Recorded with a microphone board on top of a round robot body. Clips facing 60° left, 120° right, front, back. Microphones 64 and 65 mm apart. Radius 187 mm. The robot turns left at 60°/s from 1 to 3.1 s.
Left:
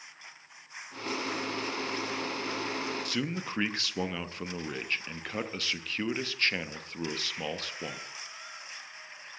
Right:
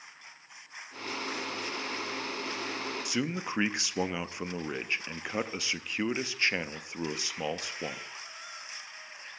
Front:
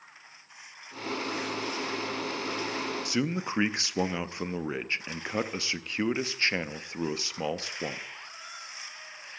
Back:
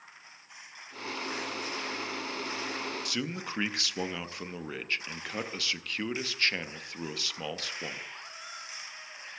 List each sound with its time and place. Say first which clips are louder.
3.0 s a man speaking: right 1 dB, front 6 dB; 50° right, 1.0 m; by 8.0 s 55° right, 1.0 m